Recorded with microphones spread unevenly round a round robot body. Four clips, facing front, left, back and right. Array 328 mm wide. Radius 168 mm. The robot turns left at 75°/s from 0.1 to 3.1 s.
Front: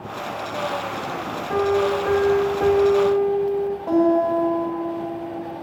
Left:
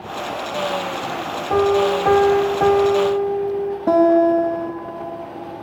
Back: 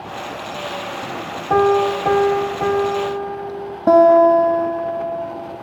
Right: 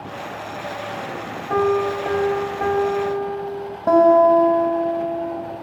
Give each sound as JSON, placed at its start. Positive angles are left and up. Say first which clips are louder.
{"t": 1.5, "sound": "a piano", "louder": "left 3 dB, back 5 dB", "azimuth_deg": 155, "distance_m": 1.6}
{"t": 3.9, "sound": "a guitar", "louder": "right 2 dB, back 9 dB", "azimuth_deg": 170, "distance_m": 2.5}